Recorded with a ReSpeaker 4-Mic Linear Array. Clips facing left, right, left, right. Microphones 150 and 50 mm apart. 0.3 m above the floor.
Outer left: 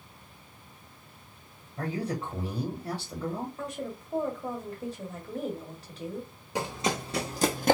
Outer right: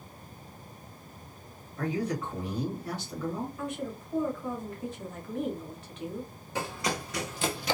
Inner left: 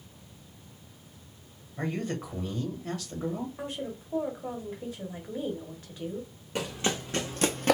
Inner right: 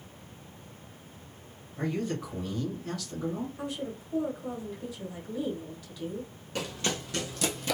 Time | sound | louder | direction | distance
1.8 | a man speaking | outer right 1 dB, inner right 1 dB | 30° left (ahead or behind) | 1.4 m
3.6 | a woman speaking | outer right 1 dB, even | 35° left (ahead or behind) | 1.0 m
6.5 | running footsteps | outer left 2 dB, inner left 2 dB | 15° left (ahead or behind) | 0.9 m